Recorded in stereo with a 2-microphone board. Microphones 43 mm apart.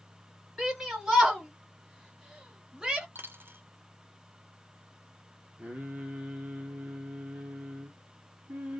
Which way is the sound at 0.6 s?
5° right (ahead or behind).